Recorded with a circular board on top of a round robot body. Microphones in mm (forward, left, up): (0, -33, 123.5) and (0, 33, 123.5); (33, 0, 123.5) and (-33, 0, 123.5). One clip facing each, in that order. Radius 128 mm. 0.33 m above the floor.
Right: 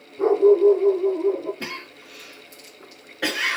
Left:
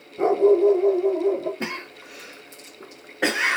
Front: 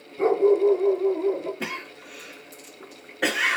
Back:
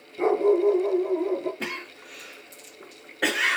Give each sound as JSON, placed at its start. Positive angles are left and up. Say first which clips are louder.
{"t": 0.2, "sound": "a dog barking", "louder": "right 2 dB, front 2 dB", "azimuth_deg": 105, "distance_m": 1.7}
{"t": 1.6, "sound": "a cough", "louder": "left 3 dB, front 1 dB", "azimuth_deg": 85, "distance_m": 0.9}